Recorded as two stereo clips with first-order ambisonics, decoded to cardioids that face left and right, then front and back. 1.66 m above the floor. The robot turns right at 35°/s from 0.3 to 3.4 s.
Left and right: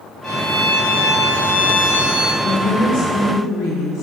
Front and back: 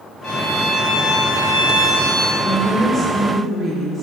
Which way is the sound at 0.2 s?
40° left.